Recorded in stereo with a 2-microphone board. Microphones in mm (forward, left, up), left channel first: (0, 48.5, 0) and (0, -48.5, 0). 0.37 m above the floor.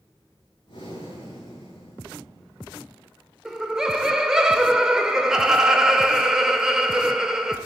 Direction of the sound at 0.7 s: 65° left (ahead or behind).